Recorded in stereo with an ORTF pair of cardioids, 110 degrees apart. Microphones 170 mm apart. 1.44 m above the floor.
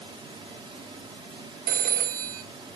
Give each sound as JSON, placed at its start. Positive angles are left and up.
{"t": 0.0, "sound": "running water", "azimuth_deg": -30, "distance_m": 3.0}
{"t": 1.7, "sound": "a phone ringing", "azimuth_deg": -60, "distance_m": 1.0}